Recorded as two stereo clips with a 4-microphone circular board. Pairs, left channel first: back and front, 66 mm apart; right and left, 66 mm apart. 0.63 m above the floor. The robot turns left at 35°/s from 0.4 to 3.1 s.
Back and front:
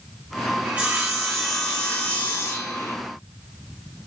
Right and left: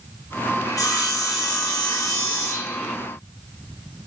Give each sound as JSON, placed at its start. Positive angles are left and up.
{"t": 0.7, "sound": "sawing", "azimuth_deg": -65, "distance_m": 0.7}